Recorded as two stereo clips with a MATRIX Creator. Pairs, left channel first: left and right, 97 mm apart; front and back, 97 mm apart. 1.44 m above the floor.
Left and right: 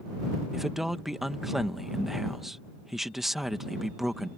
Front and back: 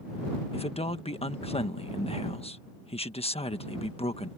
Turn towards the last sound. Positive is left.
turn(degrees=-5)